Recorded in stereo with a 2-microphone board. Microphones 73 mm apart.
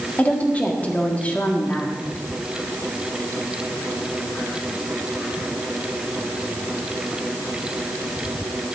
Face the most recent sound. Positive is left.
turn(degrees=20)  # may be behind; listen again after turning